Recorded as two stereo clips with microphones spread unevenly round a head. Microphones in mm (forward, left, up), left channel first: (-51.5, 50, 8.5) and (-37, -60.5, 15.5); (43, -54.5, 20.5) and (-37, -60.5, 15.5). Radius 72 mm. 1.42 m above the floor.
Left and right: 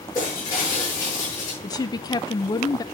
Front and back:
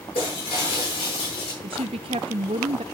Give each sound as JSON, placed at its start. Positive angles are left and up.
{"t": 0.1, "sound": "breaking glass", "azimuth_deg": 30, "distance_m": 8.0}
{"t": 1.6, "sound": "a woman speaking", "azimuth_deg": 155, "distance_m": 0.8}